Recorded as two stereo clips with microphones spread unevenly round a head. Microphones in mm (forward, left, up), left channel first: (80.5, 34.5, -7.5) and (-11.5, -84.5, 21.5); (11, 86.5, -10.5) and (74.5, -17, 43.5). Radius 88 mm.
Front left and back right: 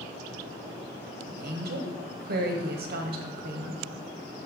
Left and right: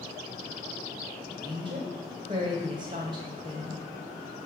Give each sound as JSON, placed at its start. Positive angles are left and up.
{"t": 1.3, "sound": "a woman speaking", "azimuth_deg": -120, "distance_m": 1.4}